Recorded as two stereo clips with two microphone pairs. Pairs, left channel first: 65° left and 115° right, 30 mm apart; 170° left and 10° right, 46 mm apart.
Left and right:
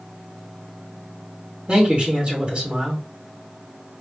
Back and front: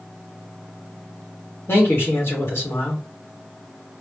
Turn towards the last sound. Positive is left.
turn(degrees=-165)